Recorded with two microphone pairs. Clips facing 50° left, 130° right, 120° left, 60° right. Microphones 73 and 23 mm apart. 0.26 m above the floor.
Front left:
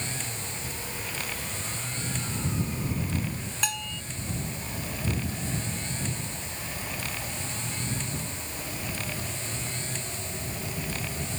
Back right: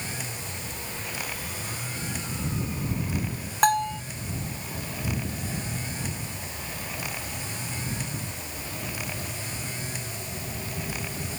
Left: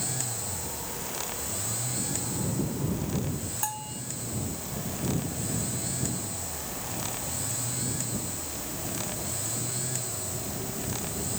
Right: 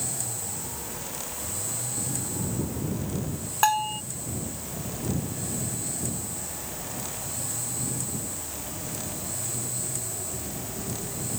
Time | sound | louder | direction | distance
3.6 | a bell | back right 14 dB, right 16 dB | 95° right | ?